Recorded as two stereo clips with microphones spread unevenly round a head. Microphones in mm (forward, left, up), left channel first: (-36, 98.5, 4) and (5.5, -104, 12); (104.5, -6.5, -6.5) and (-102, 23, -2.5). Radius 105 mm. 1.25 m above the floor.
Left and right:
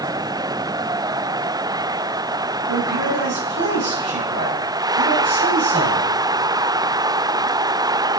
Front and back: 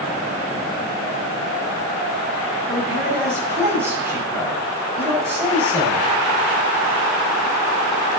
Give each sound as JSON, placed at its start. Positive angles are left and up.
{"t": 2.7, "sound": "a man speaking", "azimuth_deg": -110, "distance_m": 6.5}